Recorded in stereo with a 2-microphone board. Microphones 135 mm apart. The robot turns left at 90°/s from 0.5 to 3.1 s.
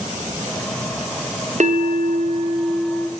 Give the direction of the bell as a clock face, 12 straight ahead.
2 o'clock.